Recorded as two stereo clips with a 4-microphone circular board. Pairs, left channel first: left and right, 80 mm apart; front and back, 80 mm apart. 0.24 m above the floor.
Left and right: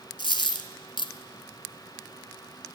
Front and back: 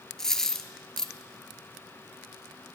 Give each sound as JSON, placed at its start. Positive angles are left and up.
{"t": 0.2, "sound": "a dropped coin", "azimuth_deg": 85, "distance_m": 0.8}